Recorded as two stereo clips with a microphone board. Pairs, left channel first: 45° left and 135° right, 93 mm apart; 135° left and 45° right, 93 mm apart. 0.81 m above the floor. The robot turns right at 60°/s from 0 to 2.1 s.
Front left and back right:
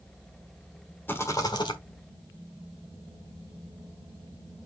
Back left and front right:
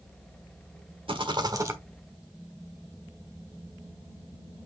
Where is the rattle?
25° right, 1.3 m; by 1.8 s 20° left, 1.3 m.